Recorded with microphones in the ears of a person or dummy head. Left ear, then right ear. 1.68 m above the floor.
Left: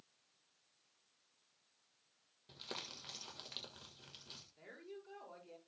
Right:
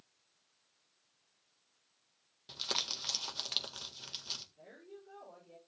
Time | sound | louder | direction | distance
2.5 | crumpling | right 12 dB | 40° right (ahead or behind) | 1.5 m
4.6 | a woman speaking | even | 65° left (ahead or behind) | 5.5 m